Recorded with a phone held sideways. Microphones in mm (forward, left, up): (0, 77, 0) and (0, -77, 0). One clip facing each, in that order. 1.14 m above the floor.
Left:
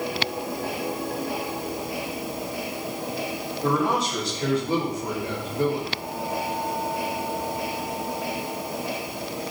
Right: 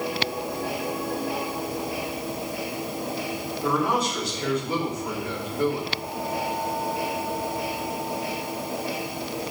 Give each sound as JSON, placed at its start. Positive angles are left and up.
{"t": 3.6, "sound": "a man speaking", "side_deg": 35, "distance_m": 4.5}